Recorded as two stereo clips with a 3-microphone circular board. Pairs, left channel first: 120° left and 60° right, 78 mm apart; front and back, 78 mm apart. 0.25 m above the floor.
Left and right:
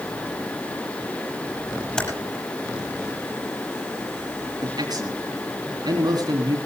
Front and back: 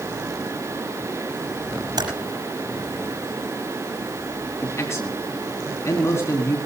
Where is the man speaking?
45° right, 2.5 m.